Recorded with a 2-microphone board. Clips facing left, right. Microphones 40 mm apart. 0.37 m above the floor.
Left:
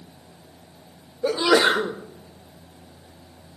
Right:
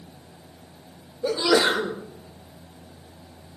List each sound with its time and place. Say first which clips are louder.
1.2 s a sneeze: left 2 dB; 25° left (ahead or behind), 0.9 m